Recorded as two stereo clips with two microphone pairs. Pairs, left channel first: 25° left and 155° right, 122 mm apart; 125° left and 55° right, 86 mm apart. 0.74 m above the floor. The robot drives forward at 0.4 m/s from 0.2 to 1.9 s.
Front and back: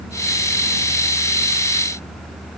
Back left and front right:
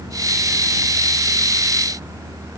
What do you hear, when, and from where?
Only background noise.